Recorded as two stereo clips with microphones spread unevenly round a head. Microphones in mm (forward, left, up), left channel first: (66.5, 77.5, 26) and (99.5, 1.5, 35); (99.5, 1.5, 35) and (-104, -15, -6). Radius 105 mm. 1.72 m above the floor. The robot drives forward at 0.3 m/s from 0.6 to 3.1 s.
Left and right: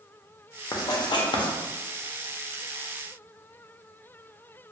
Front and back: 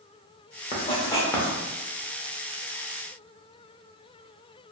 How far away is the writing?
About 0.6 m.